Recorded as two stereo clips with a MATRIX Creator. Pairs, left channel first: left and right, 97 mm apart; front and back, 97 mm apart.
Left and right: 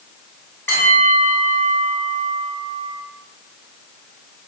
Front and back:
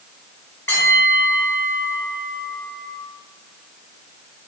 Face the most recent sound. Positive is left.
turn(degrees=45)